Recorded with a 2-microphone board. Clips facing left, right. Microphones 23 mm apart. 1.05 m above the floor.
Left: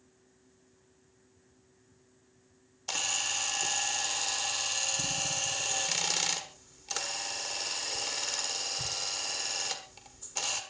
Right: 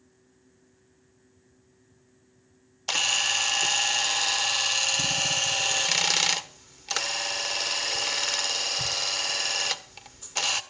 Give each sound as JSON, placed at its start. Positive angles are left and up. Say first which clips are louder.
{"t": 2.9, "sound": "a camera shutter", "louder": "right 8 dB", "side_deg": -35, "distance_m": 1.3}